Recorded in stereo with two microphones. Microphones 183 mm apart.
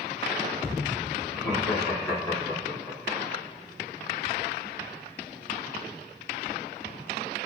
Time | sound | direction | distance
1.3 | laughter | 25° left (ahead or behind) | 1.8 m